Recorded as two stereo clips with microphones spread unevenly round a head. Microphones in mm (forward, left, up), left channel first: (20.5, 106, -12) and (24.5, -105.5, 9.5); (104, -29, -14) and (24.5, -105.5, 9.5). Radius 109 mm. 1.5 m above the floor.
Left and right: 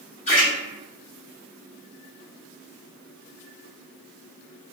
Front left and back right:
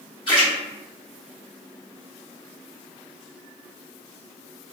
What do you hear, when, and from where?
0.3 s a splash: 65° left, 1.2 m